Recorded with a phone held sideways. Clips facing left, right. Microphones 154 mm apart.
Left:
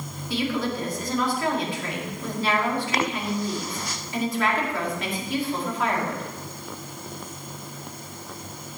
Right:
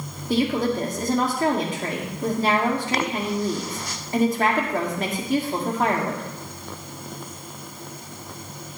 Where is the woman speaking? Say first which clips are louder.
Right 5 dB; 45° right (ahead or behind), 1.9 m.